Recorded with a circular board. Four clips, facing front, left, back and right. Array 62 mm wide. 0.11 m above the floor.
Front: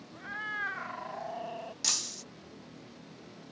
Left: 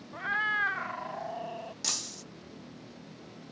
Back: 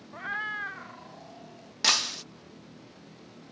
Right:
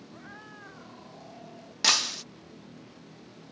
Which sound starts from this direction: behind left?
A cat meowing, at 0.1 s.